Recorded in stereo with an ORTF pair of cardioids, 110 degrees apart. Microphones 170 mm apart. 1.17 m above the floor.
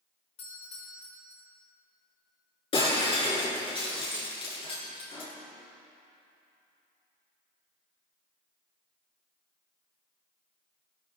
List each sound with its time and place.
0.4 s a doorbell: 35° left, 5.5 m
2.7 s breaking glass: 30° left, 7 m